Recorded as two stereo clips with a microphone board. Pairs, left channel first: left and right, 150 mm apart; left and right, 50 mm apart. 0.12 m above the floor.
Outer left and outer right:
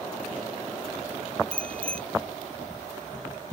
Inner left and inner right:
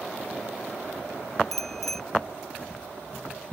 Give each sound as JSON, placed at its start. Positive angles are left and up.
{"t": 1.5, "sound": "a bicycle bell", "side_deg": 10}